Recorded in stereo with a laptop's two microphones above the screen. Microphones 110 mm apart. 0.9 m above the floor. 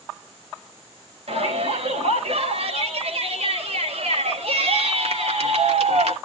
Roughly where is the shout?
Right.